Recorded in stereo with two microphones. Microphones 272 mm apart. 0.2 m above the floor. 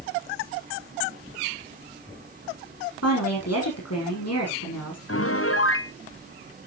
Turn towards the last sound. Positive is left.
turn(degrees=60)  # may be behind; listen again after turning